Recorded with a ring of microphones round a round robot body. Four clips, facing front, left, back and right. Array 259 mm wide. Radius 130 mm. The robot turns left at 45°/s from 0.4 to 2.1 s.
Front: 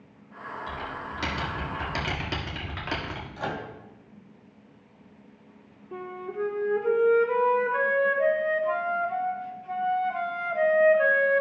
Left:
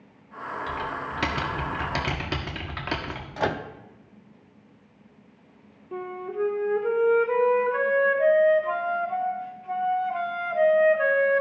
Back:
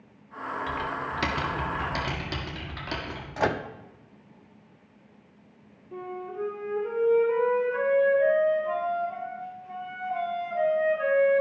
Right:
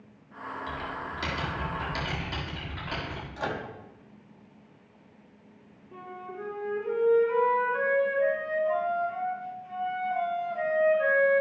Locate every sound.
0.7 s typing on a keyboard: 145° left, 1.6 m; by 3.3 s 80° left, 1.6 m
3.4 s a microwave: 140° left, 0.7 m
5.9 s a flute: 65° left, 1.5 m